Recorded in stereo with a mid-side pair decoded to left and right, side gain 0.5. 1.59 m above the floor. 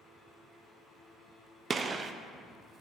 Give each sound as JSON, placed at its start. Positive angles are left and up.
{"t": 1.7, "sound": "a gunshot", "azimuth_deg": -40, "distance_m": 0.5}